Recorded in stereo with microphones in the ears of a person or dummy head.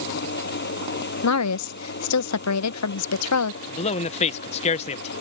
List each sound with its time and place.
0.0 s an engine running: 50° left (ahead or behind)
1.2 s a woman speaking: 80° left
3.7 s a man speaking: 35° left (ahead or behind)